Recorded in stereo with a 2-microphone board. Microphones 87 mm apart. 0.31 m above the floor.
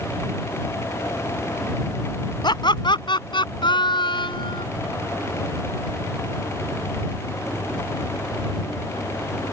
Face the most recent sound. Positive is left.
turn(degrees=70)  # may be behind; listen again after turning